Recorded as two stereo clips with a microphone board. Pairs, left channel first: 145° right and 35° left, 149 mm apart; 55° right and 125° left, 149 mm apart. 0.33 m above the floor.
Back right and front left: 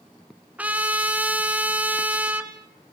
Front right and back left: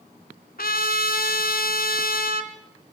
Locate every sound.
0.6 s a trumpet: 45° right, 2.0 m